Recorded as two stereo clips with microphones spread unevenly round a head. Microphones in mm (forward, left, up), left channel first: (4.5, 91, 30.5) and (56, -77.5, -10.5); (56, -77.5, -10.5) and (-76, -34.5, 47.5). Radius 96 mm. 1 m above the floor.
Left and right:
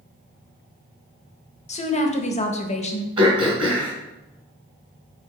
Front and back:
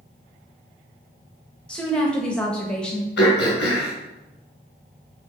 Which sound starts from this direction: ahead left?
A woman speaking, at 1.7 s.